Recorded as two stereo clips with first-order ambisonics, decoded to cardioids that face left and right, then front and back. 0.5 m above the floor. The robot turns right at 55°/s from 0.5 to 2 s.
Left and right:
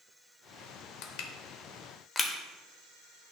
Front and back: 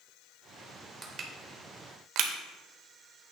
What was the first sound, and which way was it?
Crushing, 105° left.